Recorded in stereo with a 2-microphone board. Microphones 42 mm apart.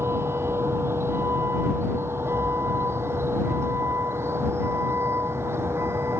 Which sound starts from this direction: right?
A vehicle, at 0.0 s.